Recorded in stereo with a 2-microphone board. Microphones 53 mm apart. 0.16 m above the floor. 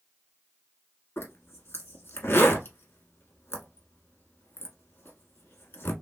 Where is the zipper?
50° left (ahead or behind), 0.9 m.